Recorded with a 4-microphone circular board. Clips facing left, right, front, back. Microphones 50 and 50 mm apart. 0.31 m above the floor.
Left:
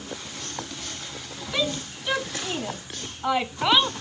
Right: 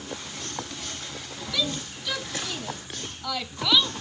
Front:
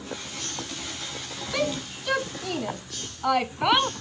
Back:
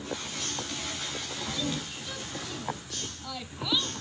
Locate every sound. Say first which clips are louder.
1.5 s a shout: left 3 dB, front 9 dB; 25° left; by 3.9 s 30° left